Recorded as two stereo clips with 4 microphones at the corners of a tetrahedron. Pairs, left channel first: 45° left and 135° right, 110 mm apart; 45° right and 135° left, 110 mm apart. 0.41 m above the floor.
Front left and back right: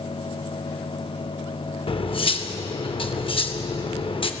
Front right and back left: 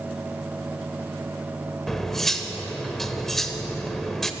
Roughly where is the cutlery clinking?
Ahead left.